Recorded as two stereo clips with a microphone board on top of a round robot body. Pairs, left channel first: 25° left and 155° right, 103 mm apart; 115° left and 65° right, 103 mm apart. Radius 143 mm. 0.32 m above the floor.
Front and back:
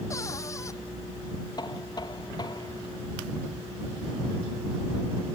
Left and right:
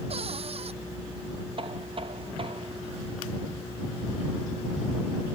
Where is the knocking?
30° right.